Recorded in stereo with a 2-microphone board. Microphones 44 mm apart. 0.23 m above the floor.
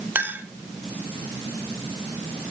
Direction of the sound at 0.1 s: 45° right (ahead or behind).